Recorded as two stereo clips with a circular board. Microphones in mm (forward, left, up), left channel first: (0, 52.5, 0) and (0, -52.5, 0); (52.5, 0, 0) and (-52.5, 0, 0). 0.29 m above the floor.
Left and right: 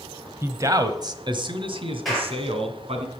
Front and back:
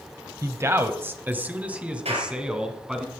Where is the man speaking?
140° right, 1.1 m; by 3.0 s 95° right, 2.5 m.